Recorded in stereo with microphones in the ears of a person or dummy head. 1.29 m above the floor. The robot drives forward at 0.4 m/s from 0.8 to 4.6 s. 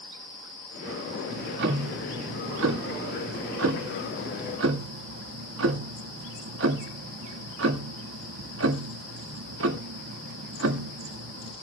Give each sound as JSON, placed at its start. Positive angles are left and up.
{"t": 1.3, "sound": "ticking", "side_deg": -70, "distance_m": 1.9}